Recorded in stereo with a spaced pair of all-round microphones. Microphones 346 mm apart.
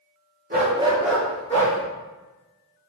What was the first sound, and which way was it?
A dog barking, 30° right (ahead or behind).